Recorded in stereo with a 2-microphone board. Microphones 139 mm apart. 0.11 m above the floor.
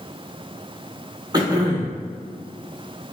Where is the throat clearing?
30° right (ahead or behind), 1.0 m.